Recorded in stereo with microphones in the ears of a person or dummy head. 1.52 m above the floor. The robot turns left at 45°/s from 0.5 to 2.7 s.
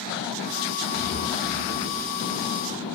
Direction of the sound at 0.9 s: 75° left (ahead or behind).